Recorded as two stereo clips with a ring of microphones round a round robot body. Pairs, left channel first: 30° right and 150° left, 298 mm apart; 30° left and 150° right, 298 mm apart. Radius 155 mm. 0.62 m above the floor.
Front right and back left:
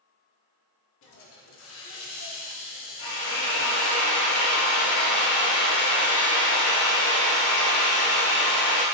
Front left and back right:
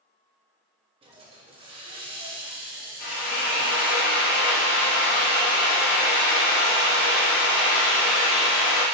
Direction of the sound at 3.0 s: 20° right.